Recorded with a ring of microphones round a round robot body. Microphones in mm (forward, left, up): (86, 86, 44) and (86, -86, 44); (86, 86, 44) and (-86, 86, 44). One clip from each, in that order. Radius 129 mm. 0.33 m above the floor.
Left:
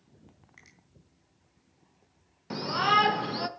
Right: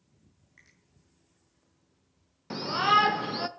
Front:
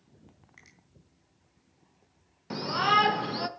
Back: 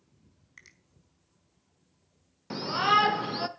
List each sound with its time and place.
0.6 s a finger snap: 150° left, 3.5 m
2.5 s a shout: 125° right, 0.8 m